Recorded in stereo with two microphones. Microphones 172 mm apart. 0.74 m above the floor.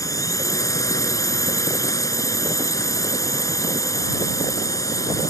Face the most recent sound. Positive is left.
turn(degrees=20)  # may be behind; listen again after turning